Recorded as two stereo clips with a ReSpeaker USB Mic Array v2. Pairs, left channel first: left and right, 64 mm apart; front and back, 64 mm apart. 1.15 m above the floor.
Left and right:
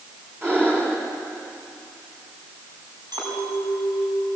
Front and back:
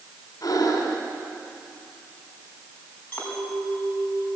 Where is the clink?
65° right, 5.5 m.